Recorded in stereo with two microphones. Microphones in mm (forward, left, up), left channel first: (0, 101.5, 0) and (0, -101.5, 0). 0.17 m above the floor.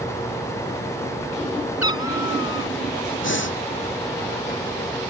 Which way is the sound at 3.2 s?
70° left (ahead or behind).